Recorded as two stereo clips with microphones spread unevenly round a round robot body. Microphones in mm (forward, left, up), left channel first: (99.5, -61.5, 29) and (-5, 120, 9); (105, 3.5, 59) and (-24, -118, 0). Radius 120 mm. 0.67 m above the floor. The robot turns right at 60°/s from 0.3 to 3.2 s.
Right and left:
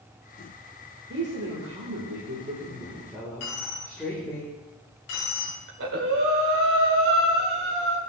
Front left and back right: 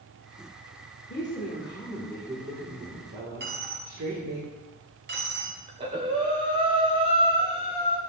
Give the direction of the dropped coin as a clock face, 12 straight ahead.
3 o'clock.